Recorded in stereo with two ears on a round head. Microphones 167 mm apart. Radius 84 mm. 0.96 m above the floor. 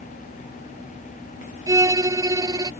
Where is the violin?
20° right (ahead or behind).